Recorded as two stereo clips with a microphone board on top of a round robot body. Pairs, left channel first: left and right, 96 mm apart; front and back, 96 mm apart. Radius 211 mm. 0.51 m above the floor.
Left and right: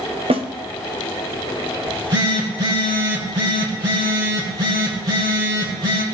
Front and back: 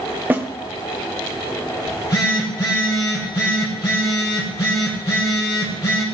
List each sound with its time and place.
0.3 s a snare drum: 110° right, 1.2 m
1.9 s a phone buzzing: 50° right, 5.5 m